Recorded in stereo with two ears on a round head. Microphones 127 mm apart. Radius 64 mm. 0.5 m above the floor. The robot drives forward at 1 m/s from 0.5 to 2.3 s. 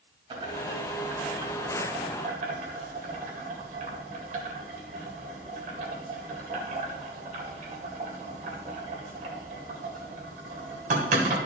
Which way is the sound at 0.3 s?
35° right (ahead or behind).